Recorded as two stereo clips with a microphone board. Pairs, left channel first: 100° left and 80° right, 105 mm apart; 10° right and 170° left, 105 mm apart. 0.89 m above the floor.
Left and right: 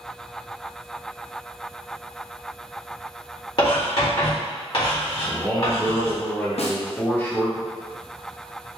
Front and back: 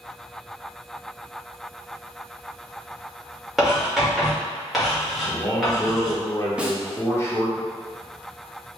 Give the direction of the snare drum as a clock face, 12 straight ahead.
9 o'clock.